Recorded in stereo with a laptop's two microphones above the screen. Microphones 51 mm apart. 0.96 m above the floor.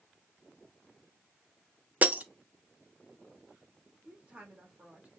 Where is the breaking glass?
35° right (ahead or behind), 0.6 m.